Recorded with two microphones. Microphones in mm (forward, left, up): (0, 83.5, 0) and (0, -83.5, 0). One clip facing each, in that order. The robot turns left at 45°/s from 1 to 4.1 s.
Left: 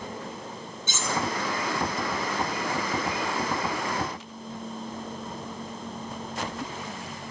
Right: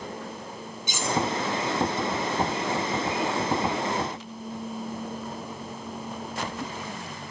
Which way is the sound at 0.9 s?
15° right (ahead or behind).